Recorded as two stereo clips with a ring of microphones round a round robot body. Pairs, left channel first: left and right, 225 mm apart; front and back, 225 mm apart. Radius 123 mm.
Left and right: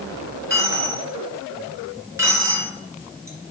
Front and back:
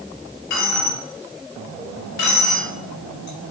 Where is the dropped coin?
10° right, 3 m.